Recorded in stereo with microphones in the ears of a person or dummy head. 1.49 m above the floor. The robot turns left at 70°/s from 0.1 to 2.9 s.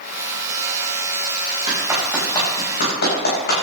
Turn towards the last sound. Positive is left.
turn(degrees=55)  # may be behind; listen again after turning